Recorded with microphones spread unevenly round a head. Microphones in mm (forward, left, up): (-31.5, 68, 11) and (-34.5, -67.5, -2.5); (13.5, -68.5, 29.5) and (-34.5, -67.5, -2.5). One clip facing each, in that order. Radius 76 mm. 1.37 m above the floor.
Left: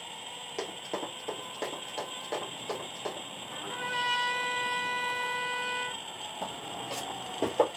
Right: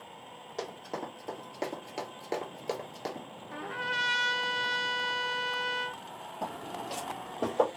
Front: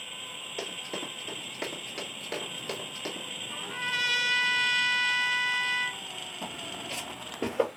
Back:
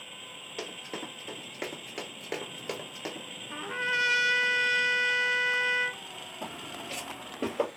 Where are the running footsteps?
30° left, 1.7 m; by 3.3 s 75° right, 1.6 m.